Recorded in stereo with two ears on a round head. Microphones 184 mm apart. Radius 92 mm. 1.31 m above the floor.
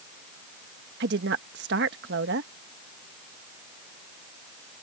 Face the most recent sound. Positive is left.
turn(degrees=-55)  # may be behind; listen again after turning